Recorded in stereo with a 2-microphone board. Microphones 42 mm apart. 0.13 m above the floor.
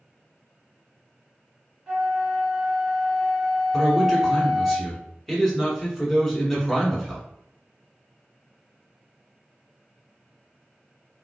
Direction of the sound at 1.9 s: 15° right (ahead or behind).